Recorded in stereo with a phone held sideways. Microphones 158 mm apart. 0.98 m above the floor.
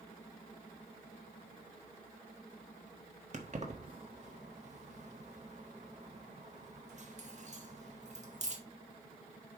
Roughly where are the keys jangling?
Right.